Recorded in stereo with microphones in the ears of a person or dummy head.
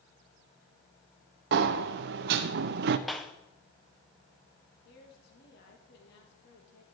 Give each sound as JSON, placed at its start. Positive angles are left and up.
{"t": 1.5, "sound": "a sliding door", "side_deg": -60, "distance_m": 0.6}
{"t": 3.1, "sound": "a clap", "side_deg": 5, "distance_m": 0.7}
{"t": 4.8, "sound": "a woman speaking", "side_deg": 70, "distance_m": 2.5}